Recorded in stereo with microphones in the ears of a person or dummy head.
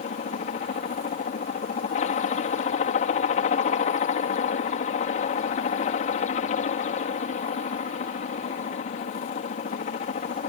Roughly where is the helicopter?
Left.